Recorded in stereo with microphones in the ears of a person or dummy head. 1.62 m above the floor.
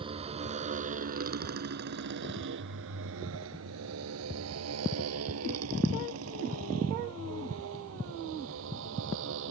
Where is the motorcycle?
30° right (ahead or behind); by 9.5 s 70° right (ahead or behind).